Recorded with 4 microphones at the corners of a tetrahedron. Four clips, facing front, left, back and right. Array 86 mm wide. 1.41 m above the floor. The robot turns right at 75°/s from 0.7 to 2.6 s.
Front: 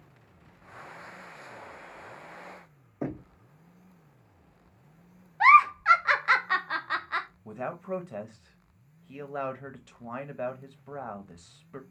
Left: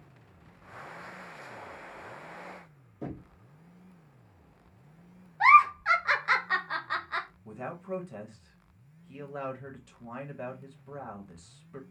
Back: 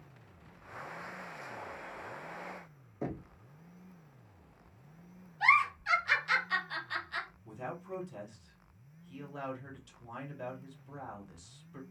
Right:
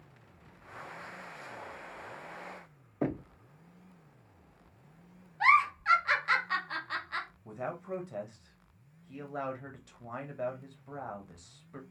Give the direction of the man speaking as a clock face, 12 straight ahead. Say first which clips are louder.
Even, front 7 dB; 12 o'clock.